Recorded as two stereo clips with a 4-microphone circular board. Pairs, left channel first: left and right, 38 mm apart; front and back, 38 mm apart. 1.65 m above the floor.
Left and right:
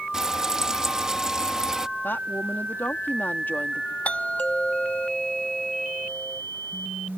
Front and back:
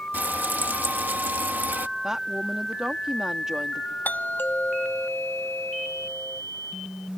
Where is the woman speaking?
105° left.